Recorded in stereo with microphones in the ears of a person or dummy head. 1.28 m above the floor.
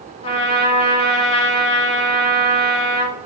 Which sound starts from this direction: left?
A trumpet, at 0.2 s.